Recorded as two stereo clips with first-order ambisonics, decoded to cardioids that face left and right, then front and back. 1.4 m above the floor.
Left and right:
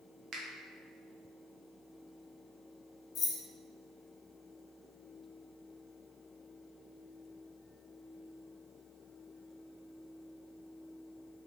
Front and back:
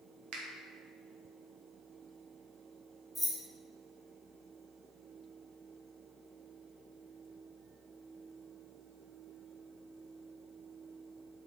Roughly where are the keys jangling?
Left.